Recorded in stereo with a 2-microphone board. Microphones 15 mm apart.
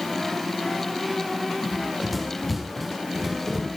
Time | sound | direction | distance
1.6 | running footsteps | centre (ahead or behind) | 6.5 m